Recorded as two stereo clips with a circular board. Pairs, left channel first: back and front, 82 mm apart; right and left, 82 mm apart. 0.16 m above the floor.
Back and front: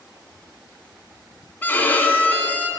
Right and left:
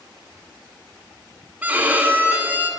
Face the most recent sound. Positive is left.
turn(degrees=140)